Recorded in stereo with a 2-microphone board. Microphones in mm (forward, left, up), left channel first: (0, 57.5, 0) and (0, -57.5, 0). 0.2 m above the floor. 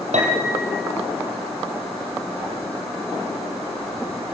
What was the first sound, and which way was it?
A piano, 80° right.